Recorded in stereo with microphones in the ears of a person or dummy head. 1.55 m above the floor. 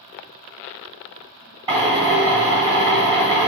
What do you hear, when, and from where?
1.7 s a drill: 30° right (ahead or behind), 1.6 m